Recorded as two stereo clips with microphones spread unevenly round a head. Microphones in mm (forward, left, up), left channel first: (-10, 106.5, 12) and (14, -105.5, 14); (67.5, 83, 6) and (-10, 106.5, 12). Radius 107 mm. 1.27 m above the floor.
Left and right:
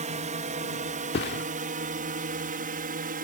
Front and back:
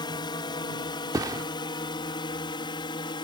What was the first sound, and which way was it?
A drone, 30° right.